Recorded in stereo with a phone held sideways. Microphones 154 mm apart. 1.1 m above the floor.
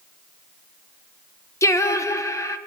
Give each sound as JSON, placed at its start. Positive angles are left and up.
{"t": 1.6, "sound": "singing", "side_deg": 20, "distance_m": 0.7}